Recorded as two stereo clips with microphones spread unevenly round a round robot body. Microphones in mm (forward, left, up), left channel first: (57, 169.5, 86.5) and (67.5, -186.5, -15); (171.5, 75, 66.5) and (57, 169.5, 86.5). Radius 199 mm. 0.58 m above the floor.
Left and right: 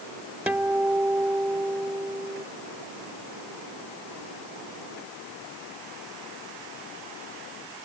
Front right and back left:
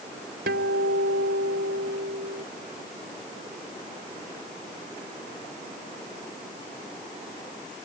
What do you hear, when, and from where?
0.5 s a guitar: 175° right